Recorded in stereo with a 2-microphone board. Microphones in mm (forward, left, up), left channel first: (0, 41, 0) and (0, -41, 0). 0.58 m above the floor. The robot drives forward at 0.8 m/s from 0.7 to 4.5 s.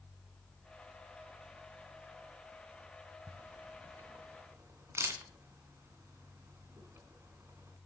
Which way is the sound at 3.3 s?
50° right (ahead or behind).